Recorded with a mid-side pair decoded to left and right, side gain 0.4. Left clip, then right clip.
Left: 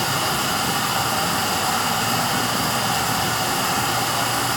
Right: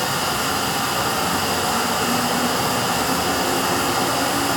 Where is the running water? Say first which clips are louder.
Even; 40° left, 1.1 m.